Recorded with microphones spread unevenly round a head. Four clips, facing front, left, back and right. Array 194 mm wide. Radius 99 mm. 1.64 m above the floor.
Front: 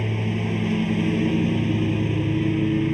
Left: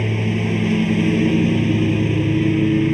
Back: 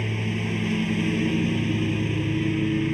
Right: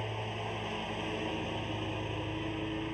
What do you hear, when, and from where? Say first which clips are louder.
0.0 s a lawn mower: left 16 dB, front 2 dB; 85° left